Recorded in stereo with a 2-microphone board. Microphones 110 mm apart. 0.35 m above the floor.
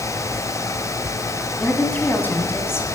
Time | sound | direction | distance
1.6 | a woman speaking | 10° left (ahead or behind) | 3 m